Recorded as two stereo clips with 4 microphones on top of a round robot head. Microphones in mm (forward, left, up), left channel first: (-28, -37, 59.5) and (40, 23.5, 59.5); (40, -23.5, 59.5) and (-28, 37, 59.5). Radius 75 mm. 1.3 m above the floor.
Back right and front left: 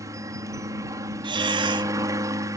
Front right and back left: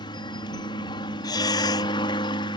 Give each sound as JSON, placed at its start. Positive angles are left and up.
{"t": 0.0, "sound": "a helicopter", "azimuth_deg": -10}
{"t": 1.2, "sound": "breathing", "azimuth_deg": 5}